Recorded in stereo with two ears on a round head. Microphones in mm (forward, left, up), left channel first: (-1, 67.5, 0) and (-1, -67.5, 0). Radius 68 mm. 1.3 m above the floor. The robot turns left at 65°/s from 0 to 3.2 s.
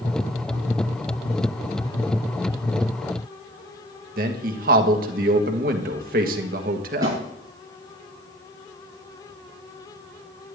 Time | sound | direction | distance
4.2 | a man speaking | 65° right (ahead or behind) | 1.4 m
7.0 | a snare drum | 25° right (ahead or behind) | 5 m